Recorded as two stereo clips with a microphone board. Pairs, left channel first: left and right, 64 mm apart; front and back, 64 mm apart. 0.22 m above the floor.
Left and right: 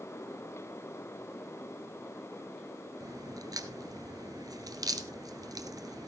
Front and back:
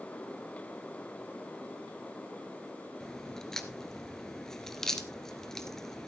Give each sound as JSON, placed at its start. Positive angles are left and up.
{"t": 3.0, "sound": "a crack", "azimuth_deg": -80, "distance_m": 1.2}